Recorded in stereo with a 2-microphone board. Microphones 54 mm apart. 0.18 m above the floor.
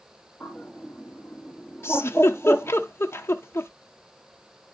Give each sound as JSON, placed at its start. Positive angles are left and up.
{"t": 0.4, "sound": "a bird", "side_deg": 0, "distance_m": 4.0}
{"t": 1.8, "sound": "a giggle", "side_deg": 50, "distance_m": 0.7}